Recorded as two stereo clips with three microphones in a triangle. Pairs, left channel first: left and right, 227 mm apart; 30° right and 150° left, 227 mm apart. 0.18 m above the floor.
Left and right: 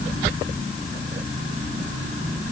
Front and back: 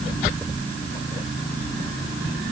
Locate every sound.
Only background noise.